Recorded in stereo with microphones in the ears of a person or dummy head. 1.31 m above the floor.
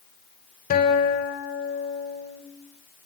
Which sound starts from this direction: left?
A guitar, at 0.7 s.